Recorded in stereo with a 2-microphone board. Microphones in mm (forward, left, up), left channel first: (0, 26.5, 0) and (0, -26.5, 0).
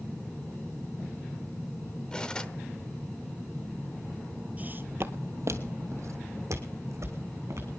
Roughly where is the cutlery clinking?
Centre.